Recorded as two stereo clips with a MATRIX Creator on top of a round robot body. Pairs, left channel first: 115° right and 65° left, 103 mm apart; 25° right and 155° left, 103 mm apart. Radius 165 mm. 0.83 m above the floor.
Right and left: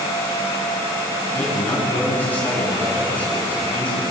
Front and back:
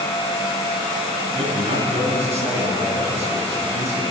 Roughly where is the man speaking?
Behind.